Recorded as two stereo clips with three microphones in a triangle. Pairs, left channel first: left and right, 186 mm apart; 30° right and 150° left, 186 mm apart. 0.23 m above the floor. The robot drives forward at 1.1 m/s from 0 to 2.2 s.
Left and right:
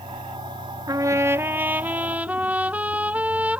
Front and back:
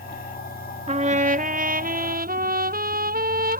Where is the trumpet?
155° right; by 3.6 s 170° right.